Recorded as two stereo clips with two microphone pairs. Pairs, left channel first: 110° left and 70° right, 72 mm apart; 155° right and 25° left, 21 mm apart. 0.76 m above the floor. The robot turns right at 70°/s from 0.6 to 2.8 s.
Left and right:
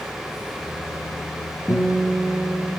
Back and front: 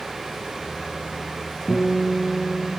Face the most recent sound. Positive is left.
turn(degrees=-110)